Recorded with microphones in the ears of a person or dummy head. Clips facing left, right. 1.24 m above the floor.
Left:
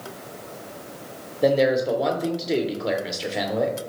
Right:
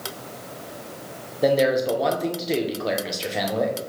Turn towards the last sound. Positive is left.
turn(degrees=0)  # may be behind; listen again after turning